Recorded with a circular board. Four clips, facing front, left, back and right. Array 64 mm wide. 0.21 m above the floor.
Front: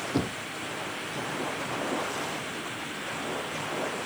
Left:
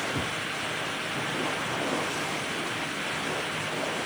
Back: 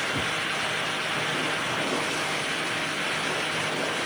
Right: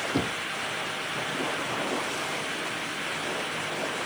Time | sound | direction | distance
0.1 | knocking | 50° right | ?